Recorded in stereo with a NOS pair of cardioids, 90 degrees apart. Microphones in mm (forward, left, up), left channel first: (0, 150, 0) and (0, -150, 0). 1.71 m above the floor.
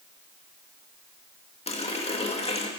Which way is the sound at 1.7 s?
20° left.